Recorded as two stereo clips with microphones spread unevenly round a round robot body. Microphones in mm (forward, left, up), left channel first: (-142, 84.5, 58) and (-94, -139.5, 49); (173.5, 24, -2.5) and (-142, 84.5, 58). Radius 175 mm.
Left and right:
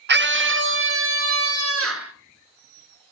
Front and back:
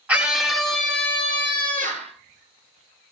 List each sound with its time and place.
0.1 s a scream: 95° right, 1.3 m